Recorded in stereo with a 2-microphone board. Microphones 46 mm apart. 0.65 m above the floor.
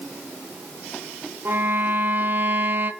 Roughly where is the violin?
Right.